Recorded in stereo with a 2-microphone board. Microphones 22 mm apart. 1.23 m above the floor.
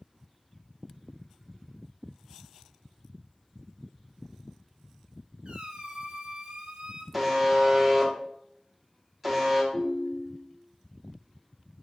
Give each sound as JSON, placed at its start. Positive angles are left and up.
{"t": 5.5, "sound": "a squeak", "side_deg": -55, "distance_m": 0.6}
{"t": 7.1, "sound": "a buzzer", "side_deg": -5, "distance_m": 0.9}
{"t": 9.7, "sound": "a ringtone", "side_deg": 20, "distance_m": 1.4}